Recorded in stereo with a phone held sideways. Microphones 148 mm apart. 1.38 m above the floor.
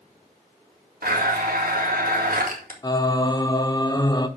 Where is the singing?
25° left (ahead or behind), 1.0 m.